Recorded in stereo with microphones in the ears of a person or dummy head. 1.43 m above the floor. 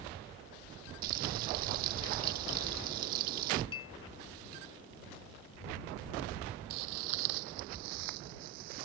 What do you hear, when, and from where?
1.0 s frying: 55° right (ahead or behind)
3.7 s a clink: 25° left (ahead or behind)
6.7 s footsteps: 55° right (ahead or behind)